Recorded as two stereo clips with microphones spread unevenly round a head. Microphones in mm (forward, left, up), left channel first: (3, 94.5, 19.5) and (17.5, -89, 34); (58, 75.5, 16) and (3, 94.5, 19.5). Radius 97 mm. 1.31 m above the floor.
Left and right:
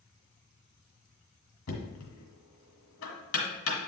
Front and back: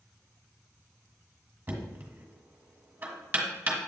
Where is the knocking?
100° left, 1.7 m.